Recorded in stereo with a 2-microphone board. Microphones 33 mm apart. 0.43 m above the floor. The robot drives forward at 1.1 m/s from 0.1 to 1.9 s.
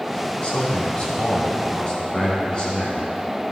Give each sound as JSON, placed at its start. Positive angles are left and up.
{"t": 0.4, "sound": "a man speaking", "side_deg": 35, "distance_m": 4.0}